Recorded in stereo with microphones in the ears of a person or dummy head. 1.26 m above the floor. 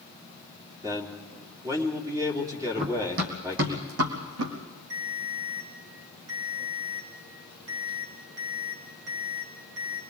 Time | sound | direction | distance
0.8 | a man speaking | 20° right (ahead or behind) | 3 m
2.8 | running footsteps | 50° right (ahead or behind) | 2 m
4.9 | a ringtone | 75° right (ahead or behind) | 4 m